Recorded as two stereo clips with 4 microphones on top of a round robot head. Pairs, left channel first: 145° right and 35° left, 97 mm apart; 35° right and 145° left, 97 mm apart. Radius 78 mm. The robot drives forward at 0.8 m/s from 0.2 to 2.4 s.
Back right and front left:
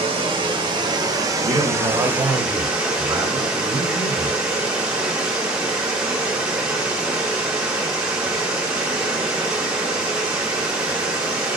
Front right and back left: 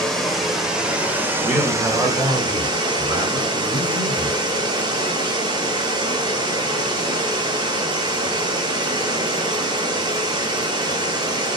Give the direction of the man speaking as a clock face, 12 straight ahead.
10 o'clock.